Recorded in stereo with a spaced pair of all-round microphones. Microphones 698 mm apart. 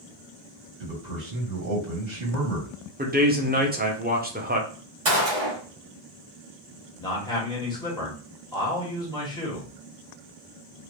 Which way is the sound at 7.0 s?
5° left (ahead or behind).